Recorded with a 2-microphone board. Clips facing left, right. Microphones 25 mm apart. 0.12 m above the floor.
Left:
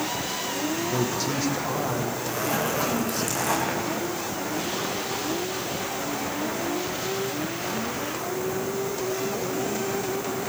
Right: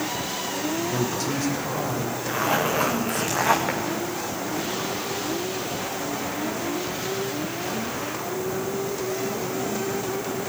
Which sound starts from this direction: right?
A zipper, at 2.3 s.